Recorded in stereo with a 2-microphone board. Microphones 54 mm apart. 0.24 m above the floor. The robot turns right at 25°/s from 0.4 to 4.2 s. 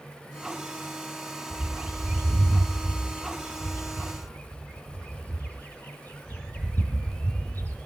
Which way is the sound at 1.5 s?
25° right (ahead or behind).